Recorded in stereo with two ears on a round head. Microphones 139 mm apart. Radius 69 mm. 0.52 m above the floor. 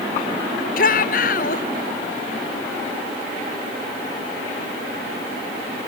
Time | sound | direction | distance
0.8 | a shout | 60° left (ahead or behind) | ?